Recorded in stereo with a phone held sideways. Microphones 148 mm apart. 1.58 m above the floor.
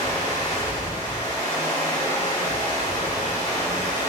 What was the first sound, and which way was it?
Running water, 30° left (ahead or behind).